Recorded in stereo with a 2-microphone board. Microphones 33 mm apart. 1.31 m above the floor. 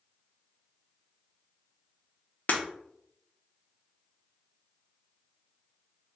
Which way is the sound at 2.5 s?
55° left (ahead or behind).